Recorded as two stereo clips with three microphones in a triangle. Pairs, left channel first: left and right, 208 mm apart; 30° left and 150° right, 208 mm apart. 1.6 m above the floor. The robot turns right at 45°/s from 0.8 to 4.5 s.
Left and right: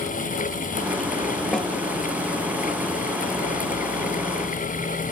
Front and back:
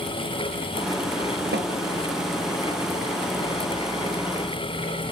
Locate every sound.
1.5 s a snare drum: 175° left, 1.0 m; by 1.7 s 175° right, 1.0 m